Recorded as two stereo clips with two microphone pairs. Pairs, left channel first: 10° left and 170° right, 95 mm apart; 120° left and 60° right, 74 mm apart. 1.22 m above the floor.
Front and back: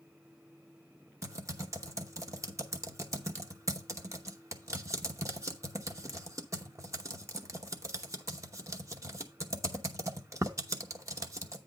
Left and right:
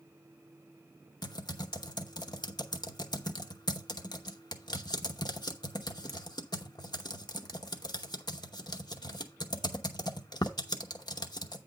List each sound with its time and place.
1.2 s typing on a keyboard: 135° left, 0.9 m